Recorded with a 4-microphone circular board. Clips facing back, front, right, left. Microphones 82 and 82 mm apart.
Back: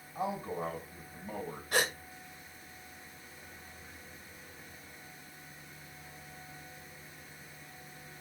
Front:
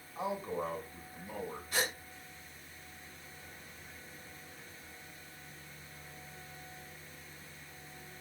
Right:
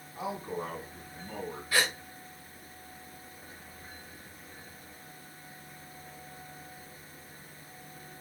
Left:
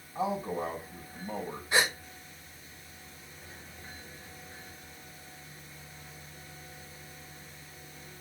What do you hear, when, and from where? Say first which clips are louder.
0.1 s a man speaking: back 1 dB, left 4 dB; 135° left, 5 m
1.7 s a gasp: back 5 dB, left 2 dB; 160° left, 1.3 m